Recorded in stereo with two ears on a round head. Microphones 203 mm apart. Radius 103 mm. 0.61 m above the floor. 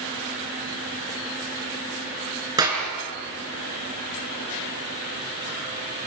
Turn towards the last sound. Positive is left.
turn(degrees=-15)  # may be behind; listen again after turning